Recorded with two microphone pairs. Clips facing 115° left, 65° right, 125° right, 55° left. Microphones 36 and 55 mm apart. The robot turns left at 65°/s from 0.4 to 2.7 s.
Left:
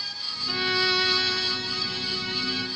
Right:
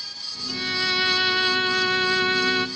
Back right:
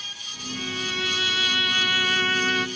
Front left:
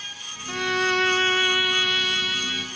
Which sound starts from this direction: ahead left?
A violin, at 0.5 s.